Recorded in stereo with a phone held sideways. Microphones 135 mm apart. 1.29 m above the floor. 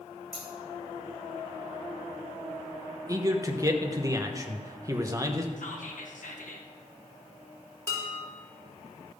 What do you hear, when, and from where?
0.3 s scissors: centre (ahead or behind), 3 m
3.1 s a man speaking: 25° right (ahead or behind), 1.0 m
5.6 s whispering: 70° left (ahead or behind), 1.6 m
7.9 s dishes clattering: 20° left (ahead or behind), 3 m